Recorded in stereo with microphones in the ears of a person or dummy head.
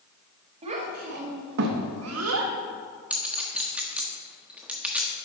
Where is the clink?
5° right (ahead or behind), 0.8 m.